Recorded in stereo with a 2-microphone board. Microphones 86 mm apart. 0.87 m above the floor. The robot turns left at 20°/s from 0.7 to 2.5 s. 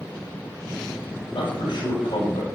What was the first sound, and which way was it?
A man speaking, 70° left (ahead or behind).